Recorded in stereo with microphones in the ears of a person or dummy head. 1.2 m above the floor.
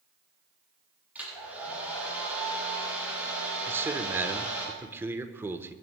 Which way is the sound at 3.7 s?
10° right (ahead or behind).